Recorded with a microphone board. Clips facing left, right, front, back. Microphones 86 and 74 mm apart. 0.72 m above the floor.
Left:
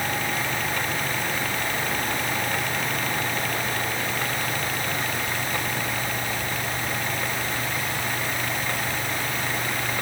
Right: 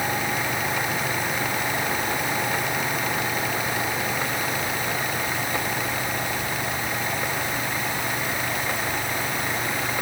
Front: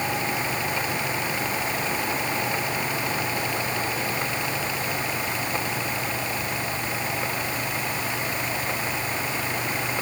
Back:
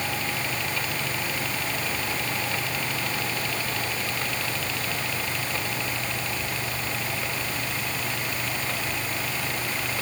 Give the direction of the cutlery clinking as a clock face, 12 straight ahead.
I don't hear cutlery clinking.